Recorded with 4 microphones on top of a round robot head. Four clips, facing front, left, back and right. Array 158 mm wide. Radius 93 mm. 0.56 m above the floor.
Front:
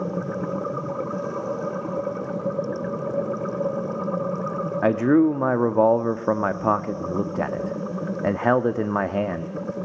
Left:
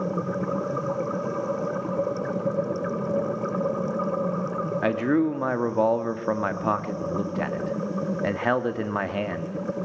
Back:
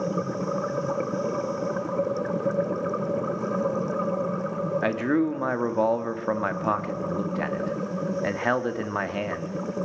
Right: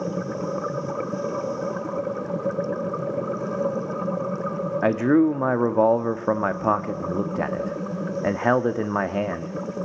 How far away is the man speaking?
About 1.3 m.